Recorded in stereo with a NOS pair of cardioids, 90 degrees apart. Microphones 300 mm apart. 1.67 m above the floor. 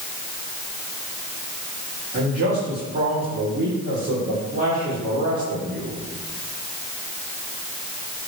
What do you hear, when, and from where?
2.1 s a man speaking: 35° right, 4 m